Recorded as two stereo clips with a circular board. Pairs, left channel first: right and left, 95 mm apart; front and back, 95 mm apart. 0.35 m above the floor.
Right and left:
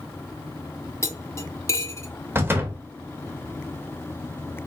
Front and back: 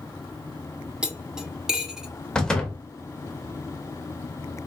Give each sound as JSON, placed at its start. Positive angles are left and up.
{"t": 1.0, "sound": "cutlery clinking", "azimuth_deg": -110, "distance_m": 0.5}
{"t": 2.4, "sound": "a door slam", "azimuth_deg": 75, "distance_m": 0.6}